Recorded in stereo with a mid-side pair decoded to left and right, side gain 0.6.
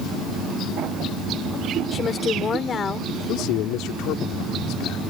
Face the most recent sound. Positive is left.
turn(degrees=70)